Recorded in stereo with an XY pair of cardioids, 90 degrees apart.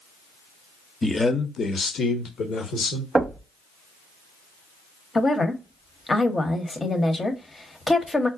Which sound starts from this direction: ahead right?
Knocking, at 3.1 s.